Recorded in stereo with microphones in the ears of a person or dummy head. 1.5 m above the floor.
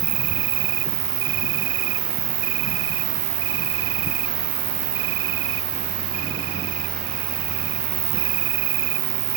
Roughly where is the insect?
Right.